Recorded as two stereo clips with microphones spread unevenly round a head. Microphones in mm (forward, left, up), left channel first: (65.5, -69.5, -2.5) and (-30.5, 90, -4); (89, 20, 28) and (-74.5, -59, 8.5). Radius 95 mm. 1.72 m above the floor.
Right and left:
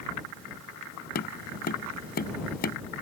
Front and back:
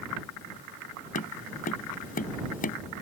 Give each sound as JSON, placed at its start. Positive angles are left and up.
{"t": 1.1, "sound": "tapping", "azimuth_deg": -20}